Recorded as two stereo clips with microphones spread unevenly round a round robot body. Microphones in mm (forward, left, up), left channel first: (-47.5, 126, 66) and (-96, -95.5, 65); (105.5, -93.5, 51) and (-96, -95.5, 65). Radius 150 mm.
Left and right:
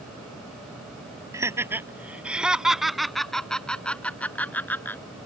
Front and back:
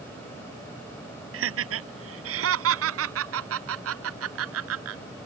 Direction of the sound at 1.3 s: Straight behind.